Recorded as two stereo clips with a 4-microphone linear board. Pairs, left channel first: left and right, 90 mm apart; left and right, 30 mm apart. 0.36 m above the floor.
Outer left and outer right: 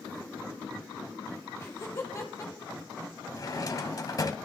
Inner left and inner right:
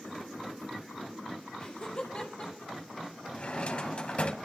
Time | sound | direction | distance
1.6 | laughter | 30° left (ahead or behind) | 5.5 m
3.3 | a drawer | 40° left (ahead or behind) | 1.3 m